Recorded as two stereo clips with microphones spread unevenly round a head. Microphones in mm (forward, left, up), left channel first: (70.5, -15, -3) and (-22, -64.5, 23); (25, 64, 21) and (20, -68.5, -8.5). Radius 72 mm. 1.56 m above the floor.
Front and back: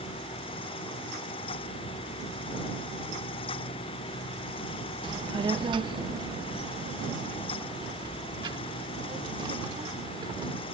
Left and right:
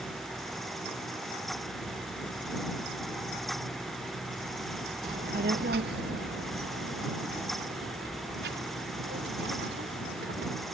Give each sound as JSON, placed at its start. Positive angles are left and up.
{"t": 5.0, "sound": "a child speaking", "azimuth_deg": -130}